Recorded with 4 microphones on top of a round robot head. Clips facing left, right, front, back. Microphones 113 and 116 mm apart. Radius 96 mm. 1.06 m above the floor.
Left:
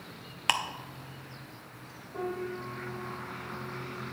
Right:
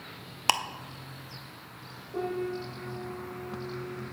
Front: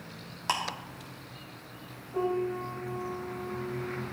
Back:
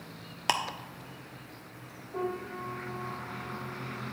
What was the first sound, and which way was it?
Ticking, 140° right.